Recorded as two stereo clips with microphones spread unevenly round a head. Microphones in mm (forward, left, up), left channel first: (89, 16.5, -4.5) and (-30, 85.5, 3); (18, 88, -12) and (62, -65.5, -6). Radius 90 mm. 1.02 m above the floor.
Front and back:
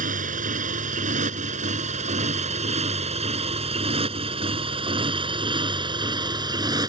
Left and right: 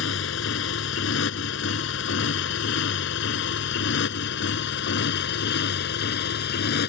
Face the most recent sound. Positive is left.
turn(degrees=90)